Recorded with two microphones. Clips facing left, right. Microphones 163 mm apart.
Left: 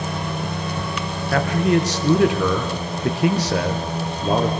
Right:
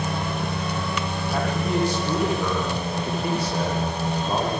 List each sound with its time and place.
1.3 s a man speaking: 80° left, 5 m